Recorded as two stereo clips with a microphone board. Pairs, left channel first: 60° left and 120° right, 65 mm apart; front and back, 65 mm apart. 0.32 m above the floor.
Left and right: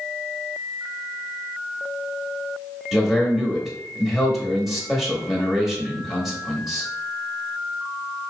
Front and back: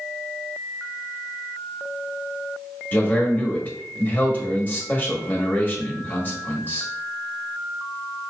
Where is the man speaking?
30° right, 1.6 m.